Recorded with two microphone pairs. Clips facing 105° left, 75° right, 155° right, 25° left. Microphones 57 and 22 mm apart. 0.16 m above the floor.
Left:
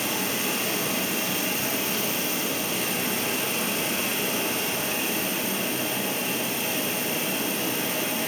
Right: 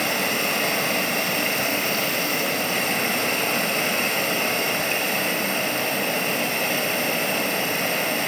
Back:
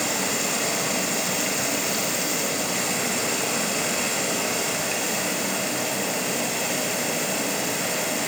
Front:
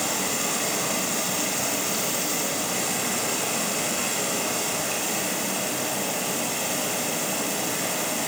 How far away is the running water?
About 2 m.